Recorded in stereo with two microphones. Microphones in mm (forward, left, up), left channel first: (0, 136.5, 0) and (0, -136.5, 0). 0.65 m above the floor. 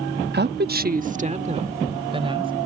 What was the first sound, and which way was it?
A woman speaking, 40° right (ahead or behind).